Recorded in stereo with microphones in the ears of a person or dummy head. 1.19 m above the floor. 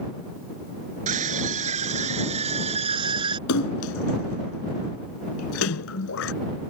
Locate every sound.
1.1 s a scream: 30° right (ahead or behind); by 3.4 s 25° right (ahead or behind)
3.5 s a splash: 70° left (ahead or behind)